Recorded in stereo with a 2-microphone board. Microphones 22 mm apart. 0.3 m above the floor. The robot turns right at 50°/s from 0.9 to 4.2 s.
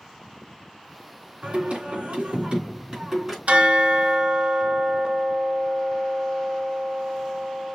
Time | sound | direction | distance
1.4 | singing | 120° right | 3 m
3.5 | a bell | 80° right | 1.0 m